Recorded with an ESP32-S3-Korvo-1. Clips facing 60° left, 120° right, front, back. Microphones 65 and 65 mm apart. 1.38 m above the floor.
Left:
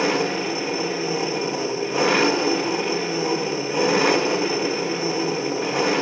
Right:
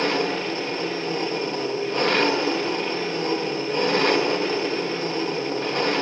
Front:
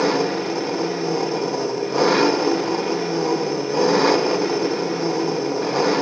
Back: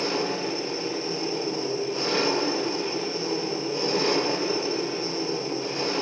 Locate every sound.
0.0 s an engine running: 20° right, 1.7 m